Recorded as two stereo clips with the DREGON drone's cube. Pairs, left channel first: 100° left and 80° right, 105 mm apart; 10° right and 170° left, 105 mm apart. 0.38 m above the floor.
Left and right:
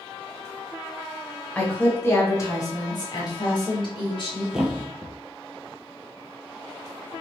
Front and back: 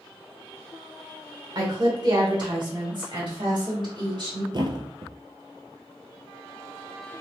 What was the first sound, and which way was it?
A woman speaking, 165° left.